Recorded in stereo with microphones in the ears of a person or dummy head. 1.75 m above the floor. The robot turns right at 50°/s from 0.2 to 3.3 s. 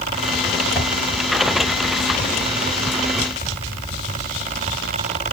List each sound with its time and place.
0.8 s a whoosh: 30° left (ahead or behind), 1.7 m; by 0.9 s 35° left (ahead or behind), 1.7 m